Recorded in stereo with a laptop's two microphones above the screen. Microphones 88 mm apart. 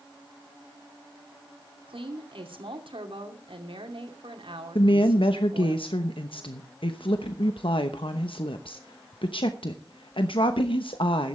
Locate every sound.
1.9 s a woman speaking: 85° right, 2.5 m
4.8 s a woman speaking: 80° left, 0.9 m